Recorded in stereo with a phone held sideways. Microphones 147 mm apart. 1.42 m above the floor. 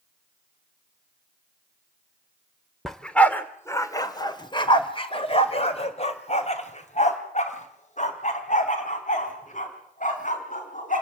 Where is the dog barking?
Centre (ahead or behind), 1.4 m; by 11.0 s 60° left (ahead or behind), 5.5 m.